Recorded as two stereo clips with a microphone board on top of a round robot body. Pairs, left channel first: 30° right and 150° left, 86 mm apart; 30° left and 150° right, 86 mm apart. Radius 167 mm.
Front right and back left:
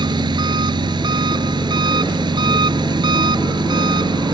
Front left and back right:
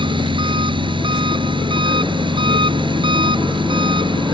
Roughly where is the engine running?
Behind.